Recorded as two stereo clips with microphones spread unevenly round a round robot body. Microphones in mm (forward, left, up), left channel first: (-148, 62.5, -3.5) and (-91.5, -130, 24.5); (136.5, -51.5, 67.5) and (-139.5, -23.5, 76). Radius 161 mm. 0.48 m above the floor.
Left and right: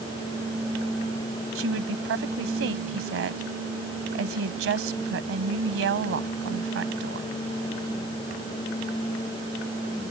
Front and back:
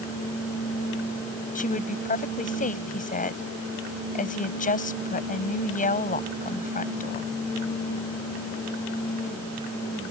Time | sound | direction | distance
1.6 | a woman speaking | 65° right | ?